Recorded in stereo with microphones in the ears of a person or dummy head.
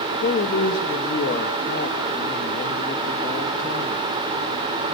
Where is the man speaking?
50° left (ahead or behind), 2.5 m.